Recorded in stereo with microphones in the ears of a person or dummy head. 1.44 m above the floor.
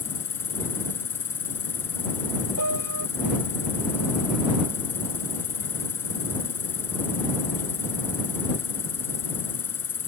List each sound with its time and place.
0.0 s an insect: 15° left (ahead or behind)
2.6 s a piano: 80° right